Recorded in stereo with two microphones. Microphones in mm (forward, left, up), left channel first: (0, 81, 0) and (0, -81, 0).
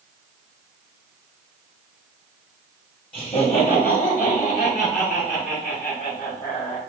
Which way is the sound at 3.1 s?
35° left (ahead or behind).